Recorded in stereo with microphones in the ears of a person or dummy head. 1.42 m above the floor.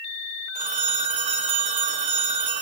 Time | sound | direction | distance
0.6 | a phone ringing | 35° right (ahead or behind) | 1.0 m